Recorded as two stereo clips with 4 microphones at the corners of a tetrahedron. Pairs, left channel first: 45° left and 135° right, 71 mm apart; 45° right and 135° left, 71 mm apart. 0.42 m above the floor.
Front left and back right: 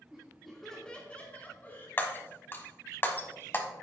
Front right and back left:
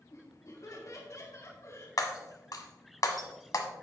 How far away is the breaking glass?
About 1.2 m.